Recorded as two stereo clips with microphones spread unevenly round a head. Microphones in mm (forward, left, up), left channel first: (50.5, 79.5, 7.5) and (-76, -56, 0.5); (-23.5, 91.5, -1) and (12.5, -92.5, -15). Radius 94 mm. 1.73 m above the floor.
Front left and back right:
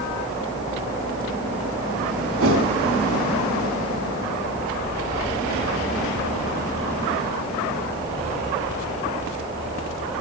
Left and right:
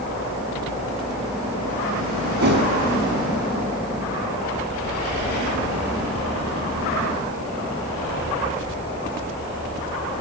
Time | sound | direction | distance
2.4 | a whoosh | 115° right | 5 m